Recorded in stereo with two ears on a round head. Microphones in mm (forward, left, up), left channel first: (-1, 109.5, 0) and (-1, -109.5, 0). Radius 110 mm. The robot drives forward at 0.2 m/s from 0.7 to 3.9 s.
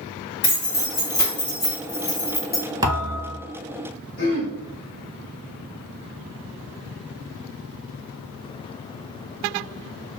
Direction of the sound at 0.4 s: 45° left (ahead or behind).